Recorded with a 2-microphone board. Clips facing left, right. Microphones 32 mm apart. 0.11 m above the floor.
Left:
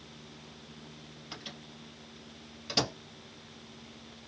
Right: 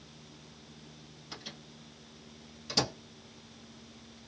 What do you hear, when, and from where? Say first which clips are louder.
1.3 s a microwave: left 1 dB; 20° left (ahead or behind), 2 m